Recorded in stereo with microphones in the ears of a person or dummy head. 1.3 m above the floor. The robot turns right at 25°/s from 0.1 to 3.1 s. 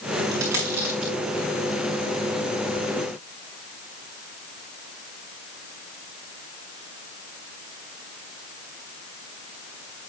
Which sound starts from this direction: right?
A dropped coin, at 0.3 s.